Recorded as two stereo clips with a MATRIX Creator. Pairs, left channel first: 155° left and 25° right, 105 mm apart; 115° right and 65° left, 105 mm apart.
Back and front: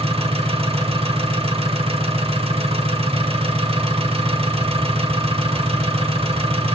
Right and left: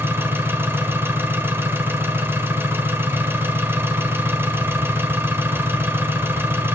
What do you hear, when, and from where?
0.0 s an engine running: straight ahead, 1.2 m